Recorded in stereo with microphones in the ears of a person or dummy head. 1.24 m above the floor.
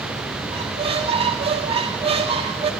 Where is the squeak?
30° right (ahead or behind), 2.0 m.